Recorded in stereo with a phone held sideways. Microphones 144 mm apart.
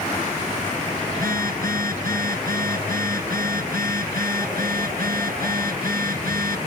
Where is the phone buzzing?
85° right.